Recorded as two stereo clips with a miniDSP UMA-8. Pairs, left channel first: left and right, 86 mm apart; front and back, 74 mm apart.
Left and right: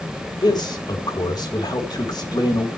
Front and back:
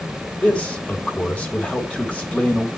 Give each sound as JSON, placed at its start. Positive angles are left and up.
{"t": 0.4, "sound": "a man speaking", "azimuth_deg": 70, "distance_m": 2.5}